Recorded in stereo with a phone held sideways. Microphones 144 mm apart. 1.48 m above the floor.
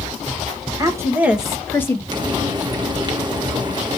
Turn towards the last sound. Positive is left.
turn(degrees=-30)  # may be behind; listen again after turning